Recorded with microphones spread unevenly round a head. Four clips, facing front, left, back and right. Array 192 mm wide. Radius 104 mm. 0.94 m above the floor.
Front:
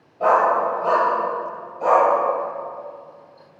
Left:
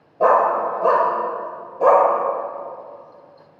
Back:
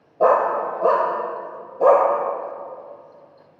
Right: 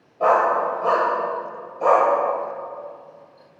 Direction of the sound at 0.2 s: 165° left.